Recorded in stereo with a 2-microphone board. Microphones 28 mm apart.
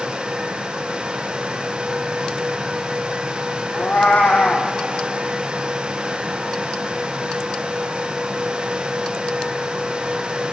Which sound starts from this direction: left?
A cat meowing, at 3.7 s.